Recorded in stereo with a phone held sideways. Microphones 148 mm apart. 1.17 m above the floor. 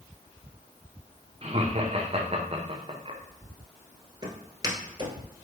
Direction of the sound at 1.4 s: 45° right (ahead or behind).